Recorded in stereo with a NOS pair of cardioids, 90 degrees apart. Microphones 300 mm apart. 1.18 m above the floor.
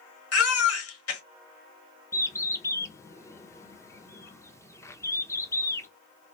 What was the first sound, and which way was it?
A baby crying, 50° left.